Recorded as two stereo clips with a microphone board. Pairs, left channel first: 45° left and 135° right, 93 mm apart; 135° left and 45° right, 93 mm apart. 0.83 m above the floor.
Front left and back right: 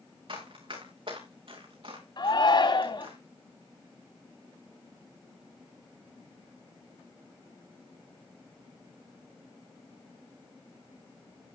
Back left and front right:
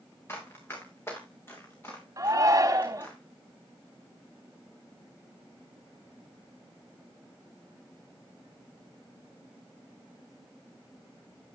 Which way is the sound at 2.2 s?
10° left.